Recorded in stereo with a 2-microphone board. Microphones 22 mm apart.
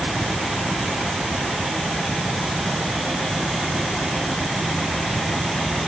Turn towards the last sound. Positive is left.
No sound to turn to.